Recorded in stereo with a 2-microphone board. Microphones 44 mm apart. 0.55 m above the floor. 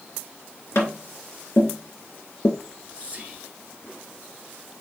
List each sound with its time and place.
0.8 s tapping: 75° left (ahead or behind), 1.8 m
2.6 s whispering: 30° right (ahead or behind), 1.7 m